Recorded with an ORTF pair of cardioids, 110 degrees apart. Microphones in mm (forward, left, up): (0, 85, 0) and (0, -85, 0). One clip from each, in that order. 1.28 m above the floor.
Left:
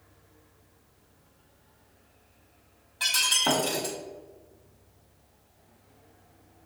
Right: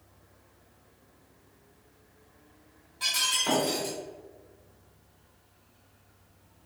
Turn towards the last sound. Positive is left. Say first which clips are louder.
# left 3 dB
turn(degrees=40)